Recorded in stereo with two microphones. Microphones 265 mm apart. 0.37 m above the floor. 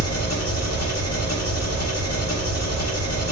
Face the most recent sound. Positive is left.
turn(degrees=65)  # may be behind; listen again after turning